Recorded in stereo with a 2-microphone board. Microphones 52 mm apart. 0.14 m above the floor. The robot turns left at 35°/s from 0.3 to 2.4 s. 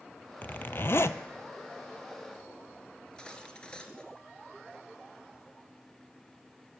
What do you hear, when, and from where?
0.4 s a zipper: 35° left (ahead or behind), 0.5 m; by 1.2 s 60° left (ahead or behind), 0.5 m
3.0 s cutlery clinking: 20° left (ahead or behind), 1.5 m